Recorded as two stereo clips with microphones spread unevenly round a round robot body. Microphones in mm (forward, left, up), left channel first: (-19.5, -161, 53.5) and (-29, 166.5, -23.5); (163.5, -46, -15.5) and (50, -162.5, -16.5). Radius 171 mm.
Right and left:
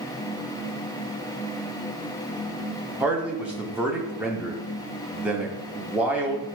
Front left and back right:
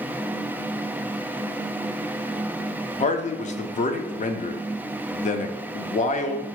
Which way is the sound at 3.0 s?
20° left.